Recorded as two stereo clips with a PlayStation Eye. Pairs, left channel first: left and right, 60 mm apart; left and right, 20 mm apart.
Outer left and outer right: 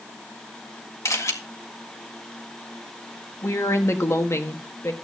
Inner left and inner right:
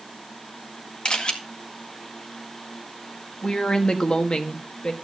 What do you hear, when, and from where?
1.1 s a camera shutter: 60° left (ahead or behind), 1.8 m
3.4 s a woman speaking: 50° left (ahead or behind), 1.5 m